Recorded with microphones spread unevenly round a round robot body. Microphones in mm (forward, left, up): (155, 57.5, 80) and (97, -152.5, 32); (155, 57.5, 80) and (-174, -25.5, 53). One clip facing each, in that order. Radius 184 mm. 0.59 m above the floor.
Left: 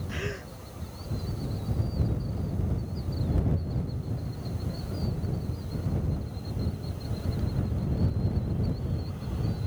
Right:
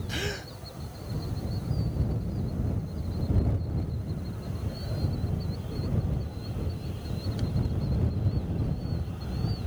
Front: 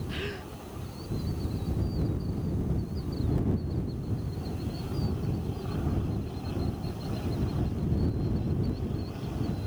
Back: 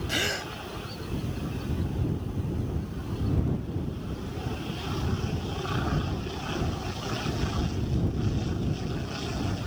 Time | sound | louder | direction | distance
0.1 | a gasp | even, back 3 dB | 155° right | ?